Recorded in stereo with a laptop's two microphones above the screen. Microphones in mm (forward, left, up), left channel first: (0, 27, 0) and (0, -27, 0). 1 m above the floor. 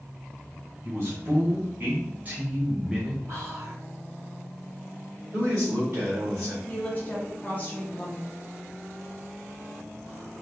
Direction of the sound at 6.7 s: 30° left (ahead or behind).